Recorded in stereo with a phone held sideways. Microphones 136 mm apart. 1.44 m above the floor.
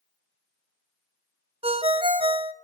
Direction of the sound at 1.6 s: 45° right (ahead or behind).